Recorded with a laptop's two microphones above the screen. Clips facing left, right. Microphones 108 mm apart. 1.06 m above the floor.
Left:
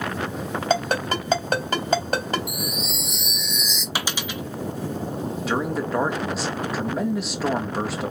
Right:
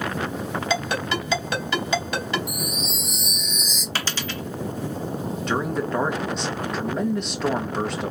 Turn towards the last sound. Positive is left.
turn(degrees=5)  # may be behind; listen again after turning